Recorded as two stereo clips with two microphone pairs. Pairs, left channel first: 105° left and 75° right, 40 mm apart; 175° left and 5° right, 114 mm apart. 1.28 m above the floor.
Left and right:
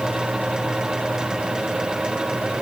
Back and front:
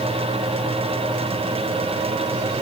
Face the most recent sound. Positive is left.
No sound to turn to.